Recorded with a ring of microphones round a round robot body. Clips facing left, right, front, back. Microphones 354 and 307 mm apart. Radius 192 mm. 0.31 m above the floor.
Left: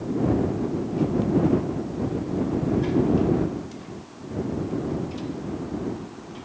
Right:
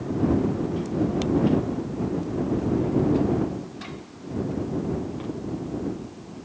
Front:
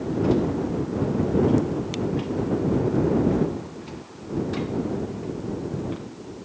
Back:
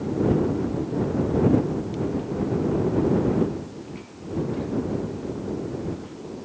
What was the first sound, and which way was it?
Only background noise.